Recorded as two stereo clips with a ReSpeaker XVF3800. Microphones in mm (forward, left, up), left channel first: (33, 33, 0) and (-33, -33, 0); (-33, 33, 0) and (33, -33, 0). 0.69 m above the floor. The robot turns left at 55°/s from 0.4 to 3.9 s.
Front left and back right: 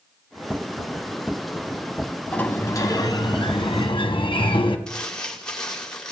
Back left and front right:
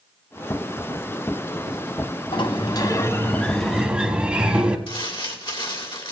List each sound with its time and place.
2.3 s a sliding door: 120° left, 1.0 m; by 4.8 s 30° left, 1.0 m
4.9 s crumpling: 125° left, 1.8 m